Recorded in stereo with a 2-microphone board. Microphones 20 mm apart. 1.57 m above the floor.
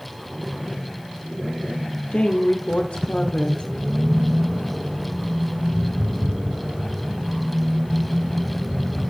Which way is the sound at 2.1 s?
70° left (ahead or behind).